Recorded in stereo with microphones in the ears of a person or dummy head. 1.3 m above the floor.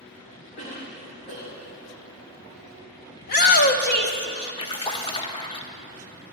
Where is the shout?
55° left (ahead or behind), 0.9 m.